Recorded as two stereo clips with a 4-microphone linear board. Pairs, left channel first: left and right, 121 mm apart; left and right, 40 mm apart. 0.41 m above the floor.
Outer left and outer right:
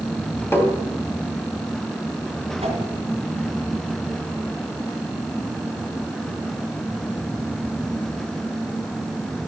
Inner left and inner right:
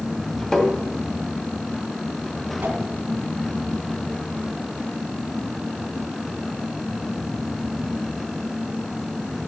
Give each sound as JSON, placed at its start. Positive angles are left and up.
{"t": 0.5, "sound": "tapping", "side_deg": 20, "distance_m": 2.0}
{"t": 2.6, "sound": "a whoosh", "side_deg": -55, "distance_m": 2.5}